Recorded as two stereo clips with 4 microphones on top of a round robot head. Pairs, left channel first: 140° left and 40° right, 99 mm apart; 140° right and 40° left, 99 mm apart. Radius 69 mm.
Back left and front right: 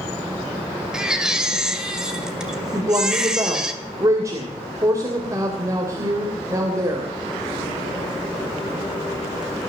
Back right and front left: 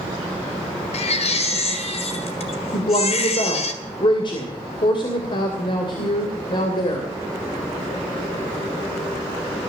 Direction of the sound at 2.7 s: 100° right.